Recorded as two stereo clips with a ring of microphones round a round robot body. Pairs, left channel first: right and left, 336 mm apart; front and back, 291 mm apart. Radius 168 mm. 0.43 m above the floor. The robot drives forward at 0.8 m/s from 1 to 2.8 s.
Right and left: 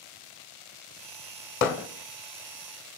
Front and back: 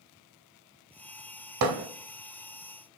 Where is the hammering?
145° right, 1.1 m; by 1.9 s 150° right, 1.2 m.